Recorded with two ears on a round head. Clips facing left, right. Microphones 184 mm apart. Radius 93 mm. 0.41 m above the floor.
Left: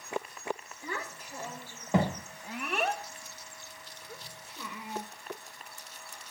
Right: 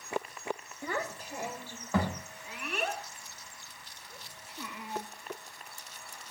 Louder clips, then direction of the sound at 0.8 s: Right 4 dB; 45° right (ahead or behind).